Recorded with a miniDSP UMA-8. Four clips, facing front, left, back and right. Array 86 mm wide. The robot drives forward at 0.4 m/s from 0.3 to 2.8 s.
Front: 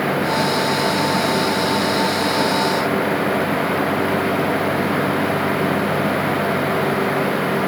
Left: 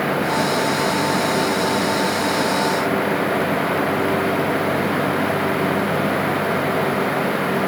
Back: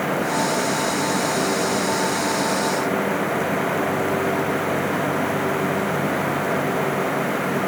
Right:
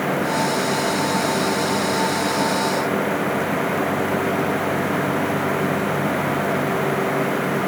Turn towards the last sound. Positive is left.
No sound to turn to.